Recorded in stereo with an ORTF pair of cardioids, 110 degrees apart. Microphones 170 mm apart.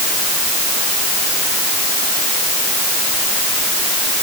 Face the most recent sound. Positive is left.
No sound to turn to.